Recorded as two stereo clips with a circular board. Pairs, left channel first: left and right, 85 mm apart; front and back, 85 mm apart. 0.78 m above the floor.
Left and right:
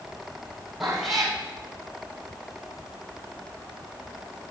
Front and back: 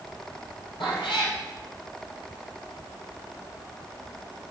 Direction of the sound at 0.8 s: Straight ahead.